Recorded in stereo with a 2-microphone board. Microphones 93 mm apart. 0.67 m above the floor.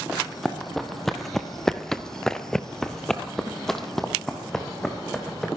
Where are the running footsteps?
Centre (ahead or behind), 1.7 m.